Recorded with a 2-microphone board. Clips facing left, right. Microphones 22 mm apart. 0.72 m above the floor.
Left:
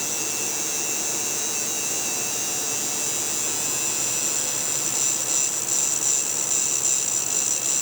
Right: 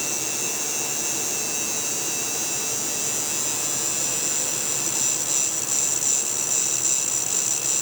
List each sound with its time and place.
Only background noise.